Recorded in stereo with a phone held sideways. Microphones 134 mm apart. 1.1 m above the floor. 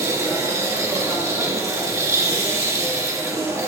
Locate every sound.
0.0 s a machine running: 20° right (ahead or behind), 1.7 m